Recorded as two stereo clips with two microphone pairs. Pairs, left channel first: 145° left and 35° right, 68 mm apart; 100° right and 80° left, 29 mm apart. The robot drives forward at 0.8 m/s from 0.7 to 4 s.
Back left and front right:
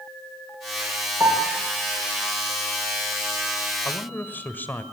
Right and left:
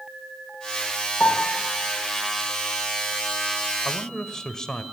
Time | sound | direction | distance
1.2 | a piano | 90° right | 6 m
3.9 | a man speaking | 160° right | 1.5 m